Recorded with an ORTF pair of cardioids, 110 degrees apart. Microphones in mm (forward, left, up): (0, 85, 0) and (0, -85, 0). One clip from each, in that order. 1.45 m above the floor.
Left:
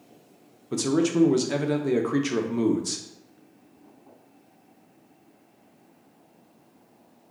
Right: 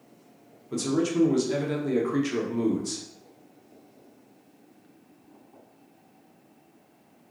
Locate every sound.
0.7 s a man speaking: 25° left, 0.7 m